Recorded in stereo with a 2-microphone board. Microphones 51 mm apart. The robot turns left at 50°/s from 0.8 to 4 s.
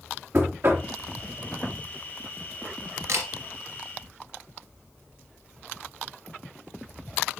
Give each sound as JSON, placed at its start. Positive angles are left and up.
{"t": 0.3, "sound": "knocking", "side_deg": -55, "distance_m": 3.0}
{"t": 3.1, "sound": "a camera shutter", "side_deg": -60, "distance_m": 2.5}